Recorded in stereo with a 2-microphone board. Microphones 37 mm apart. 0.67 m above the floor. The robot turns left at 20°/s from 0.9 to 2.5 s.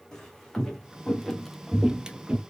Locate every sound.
0.1 s footsteps: 15° left (ahead or behind), 1.8 m; by 2.4 s 35° right (ahead or behind), 0.8 m